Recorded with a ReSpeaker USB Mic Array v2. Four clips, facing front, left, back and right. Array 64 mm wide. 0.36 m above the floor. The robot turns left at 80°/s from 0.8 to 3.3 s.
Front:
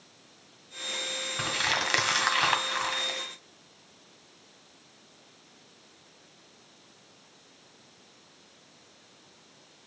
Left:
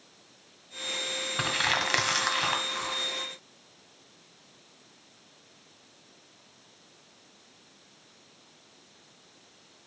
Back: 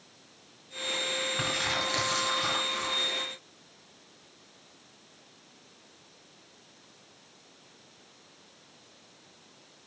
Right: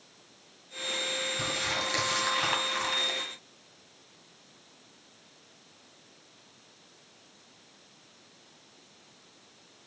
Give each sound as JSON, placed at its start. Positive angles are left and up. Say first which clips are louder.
{"t": 1.4, "sound": "crumpling", "louder": "left 8 dB, front 5 dB", "azimuth_deg": 95, "distance_m": 1.8}